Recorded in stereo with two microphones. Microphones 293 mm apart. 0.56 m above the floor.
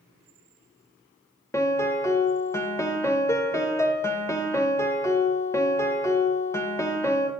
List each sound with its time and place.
1.5 s a piano: 10° left (ahead or behind), 0.7 m